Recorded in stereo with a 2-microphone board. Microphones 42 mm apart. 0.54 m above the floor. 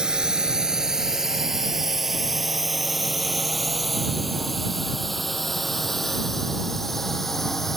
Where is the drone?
20° right (ahead or behind); by 7.8 s 5° left (ahead or behind).